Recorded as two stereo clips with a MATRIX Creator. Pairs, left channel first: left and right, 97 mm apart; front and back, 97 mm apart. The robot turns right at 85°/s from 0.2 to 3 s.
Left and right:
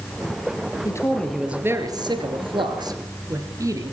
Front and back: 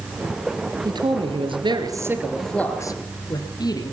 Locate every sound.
0.8 s a man speaking: 140° left, 3 m; by 3.9 s 40° right, 3 m